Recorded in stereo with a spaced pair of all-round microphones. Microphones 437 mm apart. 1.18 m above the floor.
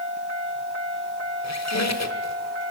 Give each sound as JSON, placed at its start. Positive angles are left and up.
{"t": 1.4, "sound": "a squeak", "side_deg": 40, "distance_m": 1.2}